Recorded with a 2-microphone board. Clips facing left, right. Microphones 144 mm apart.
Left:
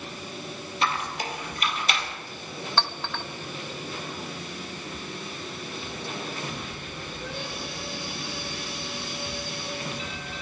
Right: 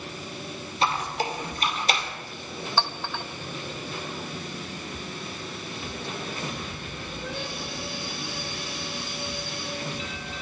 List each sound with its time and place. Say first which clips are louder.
0.8 s a squeak: right 3 dB; 30° right (ahead or behind), 2.5 m
2.8 s a clink: right 1 dB; 10° right (ahead or behind), 0.7 m